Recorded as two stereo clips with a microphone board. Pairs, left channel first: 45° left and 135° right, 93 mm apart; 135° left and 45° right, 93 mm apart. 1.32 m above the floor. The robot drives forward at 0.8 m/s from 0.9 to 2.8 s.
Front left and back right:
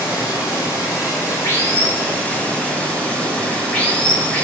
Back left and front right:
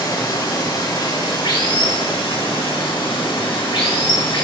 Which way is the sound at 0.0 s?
95° left.